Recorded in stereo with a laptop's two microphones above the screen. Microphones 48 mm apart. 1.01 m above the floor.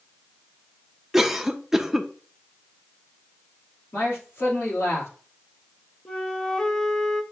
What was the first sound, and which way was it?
A cough, 10° right (ahead or behind).